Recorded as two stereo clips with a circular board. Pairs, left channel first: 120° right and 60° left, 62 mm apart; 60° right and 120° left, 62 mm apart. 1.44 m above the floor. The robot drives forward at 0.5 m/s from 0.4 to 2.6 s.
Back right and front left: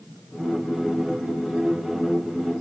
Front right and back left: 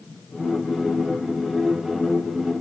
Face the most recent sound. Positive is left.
No sound to turn to.